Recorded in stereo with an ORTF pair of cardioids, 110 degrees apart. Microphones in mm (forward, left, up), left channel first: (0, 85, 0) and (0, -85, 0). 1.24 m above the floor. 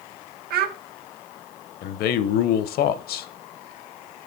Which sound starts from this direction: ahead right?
A child speaking, at 0.5 s.